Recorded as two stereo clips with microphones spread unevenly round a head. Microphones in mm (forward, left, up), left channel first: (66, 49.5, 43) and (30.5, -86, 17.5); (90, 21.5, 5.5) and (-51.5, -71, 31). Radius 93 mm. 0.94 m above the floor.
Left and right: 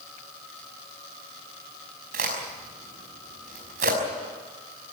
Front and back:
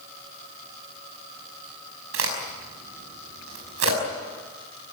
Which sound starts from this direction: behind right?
A crack, at 2.1 s.